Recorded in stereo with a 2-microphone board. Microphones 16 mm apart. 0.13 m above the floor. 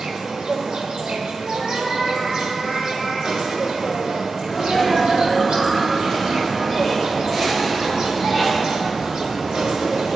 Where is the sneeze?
5° right (ahead or behind), 2.5 m.